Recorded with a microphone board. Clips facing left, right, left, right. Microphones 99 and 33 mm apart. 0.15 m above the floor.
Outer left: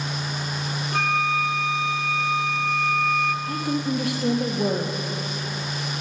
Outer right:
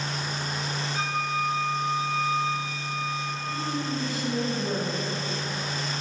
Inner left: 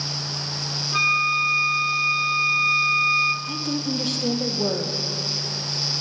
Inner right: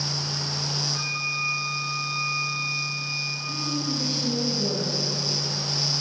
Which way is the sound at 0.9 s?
65° left (ahead or behind).